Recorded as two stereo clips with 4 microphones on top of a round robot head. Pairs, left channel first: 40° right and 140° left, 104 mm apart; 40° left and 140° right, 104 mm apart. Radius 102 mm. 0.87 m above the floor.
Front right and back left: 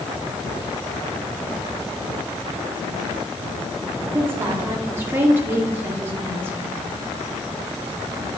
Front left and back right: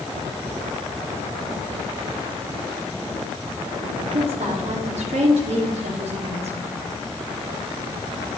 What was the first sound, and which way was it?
A woman speaking, 150° right.